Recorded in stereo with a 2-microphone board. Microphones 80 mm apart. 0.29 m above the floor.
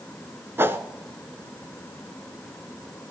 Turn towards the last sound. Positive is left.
turn(degrees=-30)  # may be behind; listen again after turning